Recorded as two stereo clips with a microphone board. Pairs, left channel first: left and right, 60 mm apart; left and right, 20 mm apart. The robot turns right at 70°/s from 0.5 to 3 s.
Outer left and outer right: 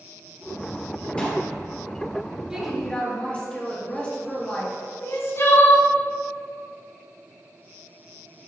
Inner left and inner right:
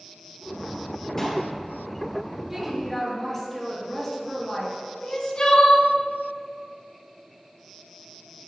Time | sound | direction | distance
1.2 | a pop | 20° left (ahead or behind) | 3 m
2.5 | a woman speaking | 15° right | 3.5 m
5.0 | crying | 45° left (ahead or behind) | 1.3 m